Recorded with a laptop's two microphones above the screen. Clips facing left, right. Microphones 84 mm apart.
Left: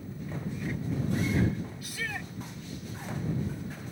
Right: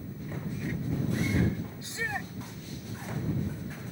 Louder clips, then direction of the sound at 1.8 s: Right 2 dB; 25° right (ahead or behind).